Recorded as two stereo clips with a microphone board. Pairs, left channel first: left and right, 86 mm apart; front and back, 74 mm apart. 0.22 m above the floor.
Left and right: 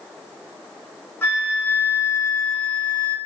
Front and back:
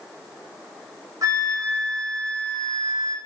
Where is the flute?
150° left, 1.0 m.